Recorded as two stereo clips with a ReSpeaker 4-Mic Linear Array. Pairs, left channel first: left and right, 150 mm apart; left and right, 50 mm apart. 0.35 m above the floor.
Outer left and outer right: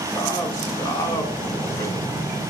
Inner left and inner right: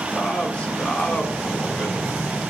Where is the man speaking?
20° left (ahead or behind), 1.5 m.